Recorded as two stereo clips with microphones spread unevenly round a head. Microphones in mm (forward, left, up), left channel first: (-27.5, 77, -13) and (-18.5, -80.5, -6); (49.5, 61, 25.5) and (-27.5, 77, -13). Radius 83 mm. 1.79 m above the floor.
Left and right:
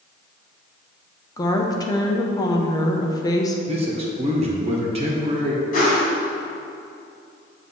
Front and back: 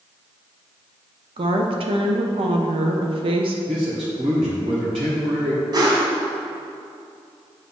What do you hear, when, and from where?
1.4 s a woman speaking: 155° left, 0.8 m
3.7 s a man speaking: 140° right, 1.5 m
5.7 s a whoosh: 130° left, 2 m